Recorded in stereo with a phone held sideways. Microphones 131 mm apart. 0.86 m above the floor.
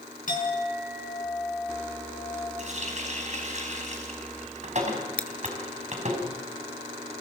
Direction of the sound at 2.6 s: 60° right (ahead or behind).